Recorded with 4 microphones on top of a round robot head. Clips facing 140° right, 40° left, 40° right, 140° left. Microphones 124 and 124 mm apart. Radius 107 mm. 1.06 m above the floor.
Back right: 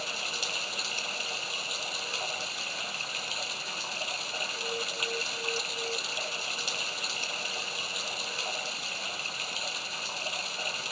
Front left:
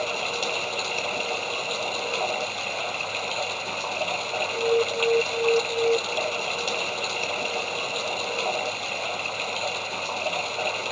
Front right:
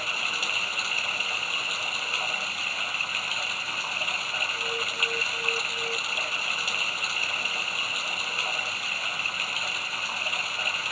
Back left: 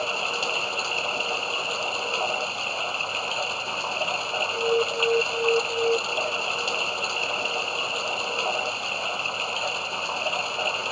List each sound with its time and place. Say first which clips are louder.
0.0 s running water: front left 11 dB, back left 7 dB; 75° left
4.5 s an alarm: front left 17 dB, back left 15 dB; 80° left